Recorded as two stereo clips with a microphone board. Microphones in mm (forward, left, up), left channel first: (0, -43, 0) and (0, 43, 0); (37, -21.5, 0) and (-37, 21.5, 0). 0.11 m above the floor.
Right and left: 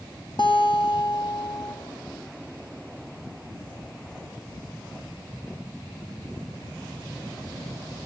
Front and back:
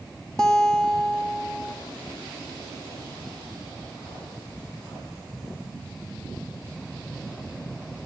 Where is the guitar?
115° right, 1.9 m.